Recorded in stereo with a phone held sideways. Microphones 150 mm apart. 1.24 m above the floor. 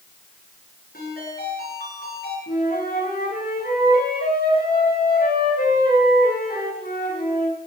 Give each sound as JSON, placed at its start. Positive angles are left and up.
{"t": 0.9, "sound": "a ringtone", "side_deg": 80, "distance_m": 9.5}
{"t": 2.5, "sound": "a flute", "side_deg": 80, "distance_m": 7.0}